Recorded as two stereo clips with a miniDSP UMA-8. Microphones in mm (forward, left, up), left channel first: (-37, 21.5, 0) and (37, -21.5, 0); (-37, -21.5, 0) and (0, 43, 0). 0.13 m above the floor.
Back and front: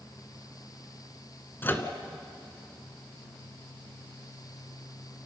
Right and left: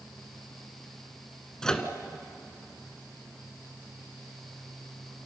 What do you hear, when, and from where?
1.6 s a microwave: 170° left, 1.4 m